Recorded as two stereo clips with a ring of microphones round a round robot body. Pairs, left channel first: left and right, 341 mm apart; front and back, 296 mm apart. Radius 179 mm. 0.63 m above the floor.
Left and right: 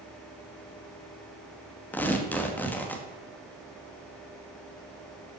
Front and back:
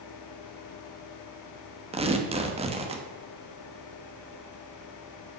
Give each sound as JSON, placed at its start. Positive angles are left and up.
{"t": 1.9, "sound": "tearing paper", "azimuth_deg": 165, "distance_m": 1.0}